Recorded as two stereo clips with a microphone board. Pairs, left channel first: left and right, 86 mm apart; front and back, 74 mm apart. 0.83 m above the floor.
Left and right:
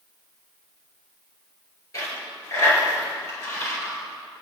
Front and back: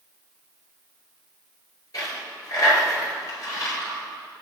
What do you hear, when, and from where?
1.9 s a dropped coin: 40° left, 5.5 m